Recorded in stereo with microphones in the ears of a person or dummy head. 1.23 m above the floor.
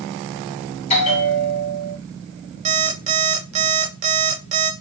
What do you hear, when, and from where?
0.9 s a bell: 30° left (ahead or behind), 1.8 m
2.6 s an alarm clock: 35° right (ahead or behind), 1.4 m